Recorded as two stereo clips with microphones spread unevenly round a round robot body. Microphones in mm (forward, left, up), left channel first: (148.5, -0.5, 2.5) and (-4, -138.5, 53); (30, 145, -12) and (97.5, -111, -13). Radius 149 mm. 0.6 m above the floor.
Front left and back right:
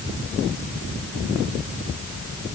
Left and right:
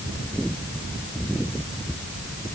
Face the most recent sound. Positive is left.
No sound to turn to.